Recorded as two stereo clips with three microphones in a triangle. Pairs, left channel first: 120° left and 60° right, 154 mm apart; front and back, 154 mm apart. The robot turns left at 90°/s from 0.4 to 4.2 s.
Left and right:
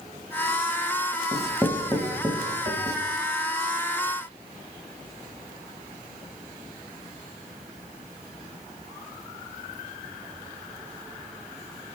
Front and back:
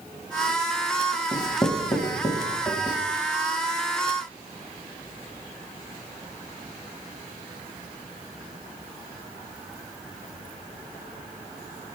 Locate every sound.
1.3 s writing: 35° left, 1.1 m; by 3.0 s 110° right, 1.1 m